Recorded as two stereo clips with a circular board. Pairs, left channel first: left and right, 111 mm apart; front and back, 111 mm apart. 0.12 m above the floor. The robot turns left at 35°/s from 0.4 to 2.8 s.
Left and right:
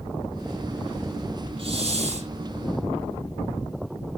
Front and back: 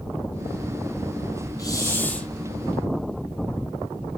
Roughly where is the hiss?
Ahead right.